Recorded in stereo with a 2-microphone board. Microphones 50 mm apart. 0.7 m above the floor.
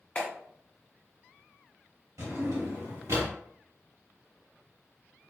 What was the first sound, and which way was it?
A clap, 25° left (ahead or behind).